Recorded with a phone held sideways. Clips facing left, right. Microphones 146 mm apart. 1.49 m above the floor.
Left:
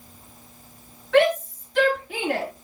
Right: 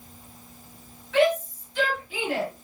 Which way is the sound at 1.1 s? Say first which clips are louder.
Left 3 dB; 75° left (ahead or behind).